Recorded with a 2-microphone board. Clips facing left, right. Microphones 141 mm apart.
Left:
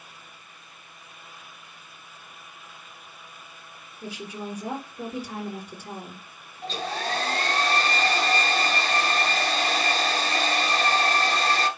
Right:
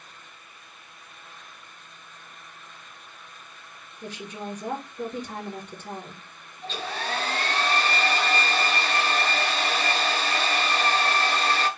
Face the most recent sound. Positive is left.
turn(degrees=40)  # may be behind; listen again after turning